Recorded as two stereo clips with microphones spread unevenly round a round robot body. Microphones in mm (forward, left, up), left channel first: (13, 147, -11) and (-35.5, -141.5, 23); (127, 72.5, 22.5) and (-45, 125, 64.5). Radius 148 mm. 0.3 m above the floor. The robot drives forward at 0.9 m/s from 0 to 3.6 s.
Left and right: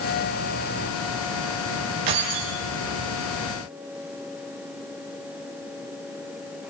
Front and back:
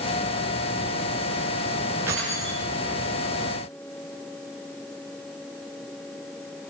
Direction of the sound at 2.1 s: 115° right.